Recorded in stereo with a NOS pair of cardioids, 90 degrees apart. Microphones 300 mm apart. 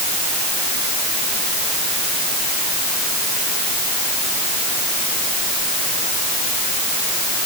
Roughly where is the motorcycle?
No motorcycle in this recording.